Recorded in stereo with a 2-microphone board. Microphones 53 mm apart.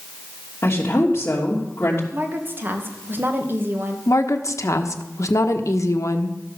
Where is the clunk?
I don't hear a clunk.